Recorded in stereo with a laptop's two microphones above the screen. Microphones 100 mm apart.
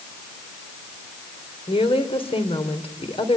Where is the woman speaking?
70° left (ahead or behind), 3 m.